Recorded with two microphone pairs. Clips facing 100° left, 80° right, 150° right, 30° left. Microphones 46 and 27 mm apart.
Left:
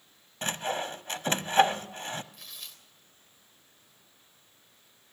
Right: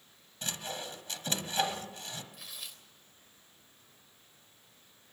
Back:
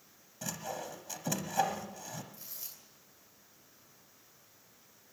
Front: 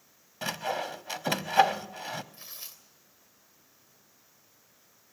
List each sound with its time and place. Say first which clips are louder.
0.4 s sawing: left 8 dB, front 8 dB; 55° left, 0.9 m
2.3 s tearing paper: even, front 4 dB; 5° left, 3 m